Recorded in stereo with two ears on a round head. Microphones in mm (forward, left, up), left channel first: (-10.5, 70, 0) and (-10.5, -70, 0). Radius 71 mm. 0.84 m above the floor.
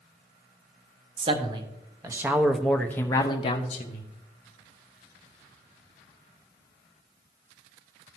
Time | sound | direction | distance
1.2 | a man speaking | 35° right (ahead or behind) | 1.4 m